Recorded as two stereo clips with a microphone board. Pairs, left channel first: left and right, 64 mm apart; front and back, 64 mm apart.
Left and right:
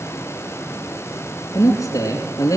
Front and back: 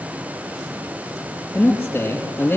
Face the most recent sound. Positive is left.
turn(degrees=60)